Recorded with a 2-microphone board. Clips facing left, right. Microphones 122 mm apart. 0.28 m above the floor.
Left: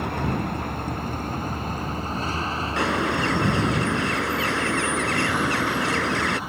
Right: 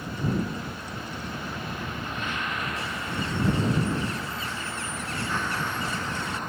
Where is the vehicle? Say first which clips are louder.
Left 3 dB; 60° left (ahead or behind); by 6.5 s 5° left (ahead or behind).